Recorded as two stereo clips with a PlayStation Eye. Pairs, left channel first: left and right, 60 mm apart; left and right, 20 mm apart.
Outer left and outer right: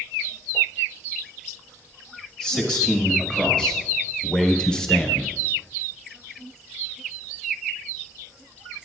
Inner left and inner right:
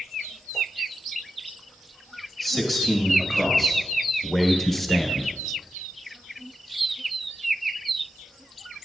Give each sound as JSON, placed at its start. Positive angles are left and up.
{"t": 2.4, "sound": "a man speaking", "side_deg": 15, "distance_m": 2.5}